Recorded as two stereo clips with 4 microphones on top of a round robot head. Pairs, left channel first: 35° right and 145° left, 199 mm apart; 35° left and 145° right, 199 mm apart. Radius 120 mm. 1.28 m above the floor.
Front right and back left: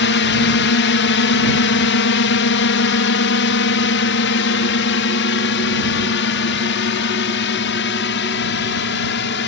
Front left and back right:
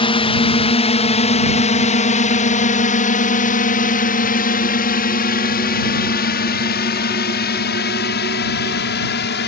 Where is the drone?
30° right; by 9.5 s 5° right.